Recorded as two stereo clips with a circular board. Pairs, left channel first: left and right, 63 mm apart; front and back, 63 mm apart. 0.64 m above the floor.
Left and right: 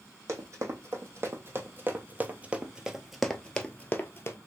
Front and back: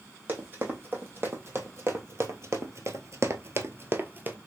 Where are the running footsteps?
125° right, 1.9 m; by 4.4 s 130° left, 1.0 m.